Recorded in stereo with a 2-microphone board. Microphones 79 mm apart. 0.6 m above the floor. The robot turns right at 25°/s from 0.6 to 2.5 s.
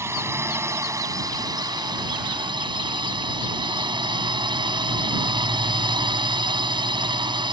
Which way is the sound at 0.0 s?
145° right.